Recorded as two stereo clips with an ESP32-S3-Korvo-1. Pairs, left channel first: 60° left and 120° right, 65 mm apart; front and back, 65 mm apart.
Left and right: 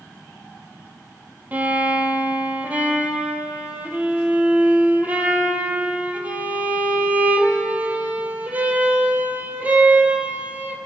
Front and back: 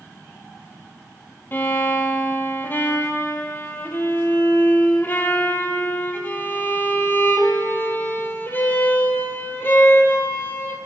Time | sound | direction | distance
1.5 | a violin | 55° right | 1.0 m